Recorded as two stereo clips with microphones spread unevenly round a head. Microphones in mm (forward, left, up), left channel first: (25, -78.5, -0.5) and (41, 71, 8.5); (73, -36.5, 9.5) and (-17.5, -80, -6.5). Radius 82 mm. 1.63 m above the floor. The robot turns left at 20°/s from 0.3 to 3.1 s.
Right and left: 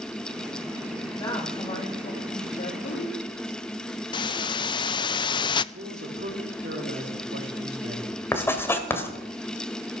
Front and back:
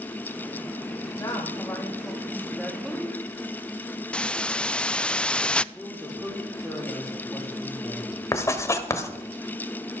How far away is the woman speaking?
About 3 m.